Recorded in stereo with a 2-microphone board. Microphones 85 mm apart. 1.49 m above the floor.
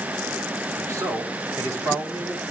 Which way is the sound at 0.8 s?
40° right (ahead or behind).